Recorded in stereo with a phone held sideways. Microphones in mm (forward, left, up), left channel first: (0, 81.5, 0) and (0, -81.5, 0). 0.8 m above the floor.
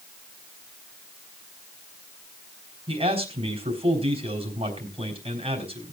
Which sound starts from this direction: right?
A man speaking, at 2.9 s.